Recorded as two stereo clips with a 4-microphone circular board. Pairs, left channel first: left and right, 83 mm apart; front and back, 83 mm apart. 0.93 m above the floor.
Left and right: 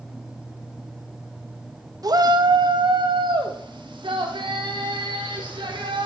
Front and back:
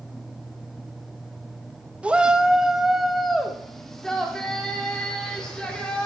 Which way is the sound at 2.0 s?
110° right.